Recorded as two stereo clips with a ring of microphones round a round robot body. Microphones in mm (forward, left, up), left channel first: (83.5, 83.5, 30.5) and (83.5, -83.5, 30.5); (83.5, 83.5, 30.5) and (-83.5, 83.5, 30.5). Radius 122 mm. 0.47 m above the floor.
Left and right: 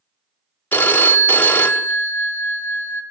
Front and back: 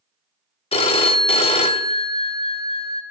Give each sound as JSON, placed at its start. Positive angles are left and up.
{"t": 0.7, "sound": "a phone ringing", "azimuth_deg": 15, "distance_m": 0.7}